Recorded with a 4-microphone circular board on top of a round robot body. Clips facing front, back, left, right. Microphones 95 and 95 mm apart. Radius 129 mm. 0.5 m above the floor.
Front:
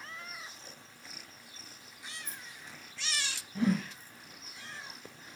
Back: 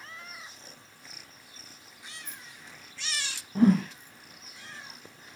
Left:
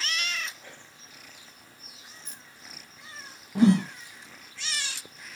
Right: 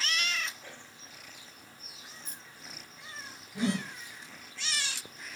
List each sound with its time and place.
2.2 s keys jangling: 50° right, 2.0 m
3.5 s a whoosh: 130° left, 0.6 m